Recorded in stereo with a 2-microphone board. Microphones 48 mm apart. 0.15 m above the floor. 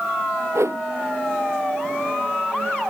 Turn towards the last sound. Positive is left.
turn(degrees=-70)  # may be behind; listen again after turning